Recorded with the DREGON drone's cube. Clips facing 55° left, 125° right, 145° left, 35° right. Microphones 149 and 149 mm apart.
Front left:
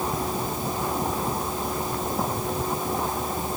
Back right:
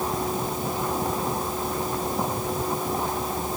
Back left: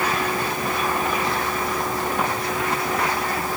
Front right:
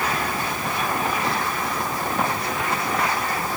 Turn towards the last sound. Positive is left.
No sound to turn to.